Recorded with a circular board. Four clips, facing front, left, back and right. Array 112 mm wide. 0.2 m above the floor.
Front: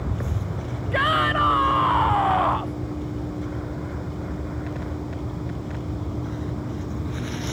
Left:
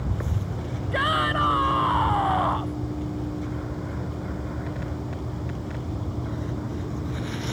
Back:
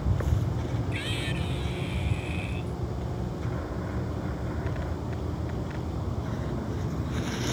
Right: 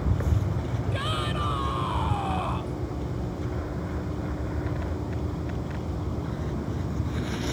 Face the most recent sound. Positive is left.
turn(degrees=20)